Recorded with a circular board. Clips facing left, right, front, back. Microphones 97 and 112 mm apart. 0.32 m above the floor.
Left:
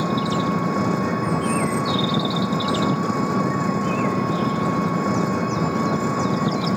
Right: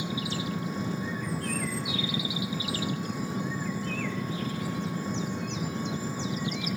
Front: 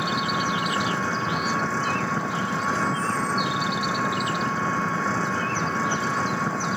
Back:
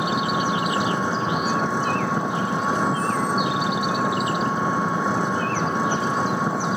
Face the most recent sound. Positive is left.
turn(degrees=105)